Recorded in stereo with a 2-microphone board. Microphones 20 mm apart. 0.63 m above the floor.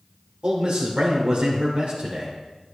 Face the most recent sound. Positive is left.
turn(degrees=-65)  # may be behind; listen again after turning